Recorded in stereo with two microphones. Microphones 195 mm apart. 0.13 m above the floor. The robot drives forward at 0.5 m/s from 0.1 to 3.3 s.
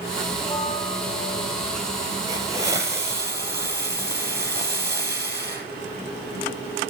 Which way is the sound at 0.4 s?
20° left (ahead or behind).